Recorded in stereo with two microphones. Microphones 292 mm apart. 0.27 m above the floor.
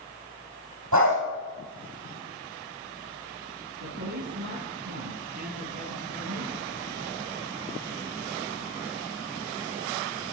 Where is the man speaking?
70° right (ahead or behind), 7.5 m.